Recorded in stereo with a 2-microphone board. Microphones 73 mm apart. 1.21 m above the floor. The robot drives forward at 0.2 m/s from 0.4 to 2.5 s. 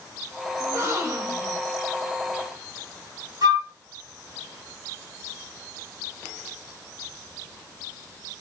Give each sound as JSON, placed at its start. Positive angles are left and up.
{"t": 0.6, "sound": "a gasp", "side_deg": -45, "distance_m": 2.5}
{"t": 3.4, "sound": "a flute", "side_deg": -70, "distance_m": 2.5}